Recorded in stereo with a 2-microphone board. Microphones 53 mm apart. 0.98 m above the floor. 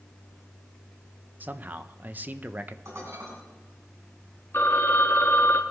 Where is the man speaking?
35° right (ahead or behind), 0.6 m.